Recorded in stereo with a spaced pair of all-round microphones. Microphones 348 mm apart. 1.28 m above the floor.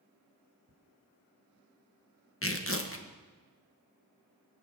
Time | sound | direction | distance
0.7 | ticking | 80° right | 2 m
2.4 | tearing paper | 40° left (ahead or behind) | 1.4 m